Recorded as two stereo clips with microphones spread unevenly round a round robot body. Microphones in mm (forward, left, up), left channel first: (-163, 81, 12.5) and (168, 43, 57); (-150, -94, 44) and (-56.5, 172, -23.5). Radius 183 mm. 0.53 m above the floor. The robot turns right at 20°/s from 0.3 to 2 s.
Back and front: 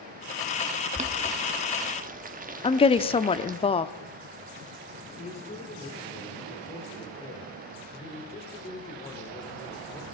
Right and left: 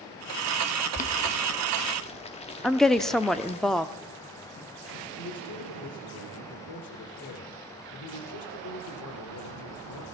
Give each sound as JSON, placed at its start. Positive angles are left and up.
{"t": 0.9, "sound": "boiling", "azimuth_deg": -60, "distance_m": 1.3}
{"t": 2.6, "sound": "a woman speaking", "azimuth_deg": 135, "distance_m": 0.7}
{"t": 5.2, "sound": "a man speaking", "azimuth_deg": -120, "distance_m": 2.5}